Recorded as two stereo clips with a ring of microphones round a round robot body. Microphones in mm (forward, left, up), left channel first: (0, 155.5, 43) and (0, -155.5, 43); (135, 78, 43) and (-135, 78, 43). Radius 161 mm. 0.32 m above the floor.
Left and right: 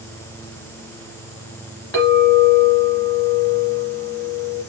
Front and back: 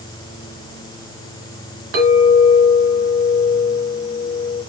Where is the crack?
I don't hear a crack.